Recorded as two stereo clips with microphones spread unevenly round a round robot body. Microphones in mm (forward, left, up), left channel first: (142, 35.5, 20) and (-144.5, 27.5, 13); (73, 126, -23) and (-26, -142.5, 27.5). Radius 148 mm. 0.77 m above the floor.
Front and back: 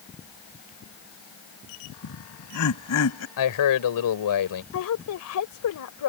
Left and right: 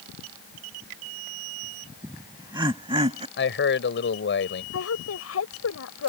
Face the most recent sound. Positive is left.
turn(degrees=30)